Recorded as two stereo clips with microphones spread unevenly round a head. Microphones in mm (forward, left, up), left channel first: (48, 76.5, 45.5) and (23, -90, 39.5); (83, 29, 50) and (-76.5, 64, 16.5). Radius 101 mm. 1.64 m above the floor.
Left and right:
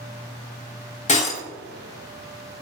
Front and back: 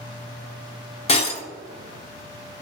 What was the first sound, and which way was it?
Breaking glass, 35° left.